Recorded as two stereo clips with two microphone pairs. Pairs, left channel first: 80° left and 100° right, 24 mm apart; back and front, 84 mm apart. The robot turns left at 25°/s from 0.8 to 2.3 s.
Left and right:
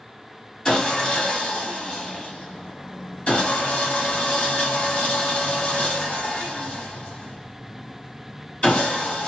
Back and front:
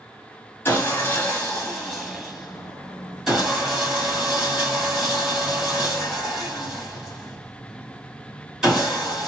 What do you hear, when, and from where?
0.7 s sawing: 125° left, 1.4 m; by 9.3 s 85° left, 1.4 m